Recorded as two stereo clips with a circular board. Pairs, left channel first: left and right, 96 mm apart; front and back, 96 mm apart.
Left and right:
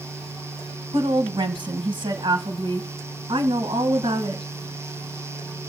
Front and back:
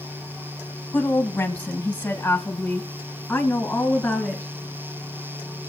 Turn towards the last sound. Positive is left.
turn(degrees=-75)